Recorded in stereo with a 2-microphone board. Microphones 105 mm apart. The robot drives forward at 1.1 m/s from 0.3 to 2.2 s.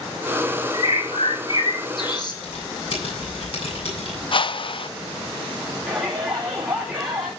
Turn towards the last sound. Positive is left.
turn(degrees=-10)  # may be behind; listen again after turning